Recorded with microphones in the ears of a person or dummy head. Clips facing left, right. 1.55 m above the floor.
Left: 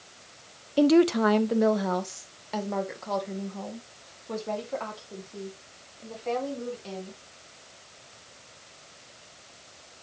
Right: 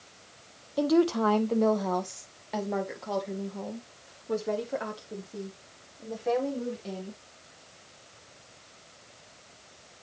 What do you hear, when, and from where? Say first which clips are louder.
0.8 s a woman speaking: left 4 dB; 50° left (ahead or behind), 0.8 m; by 7.2 s 10° right (ahead or behind), 4 m